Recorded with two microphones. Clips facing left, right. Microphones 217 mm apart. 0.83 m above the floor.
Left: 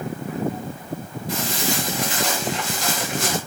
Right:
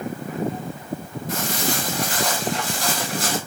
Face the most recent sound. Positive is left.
turn(degrees=-35)  # may be behind; listen again after turning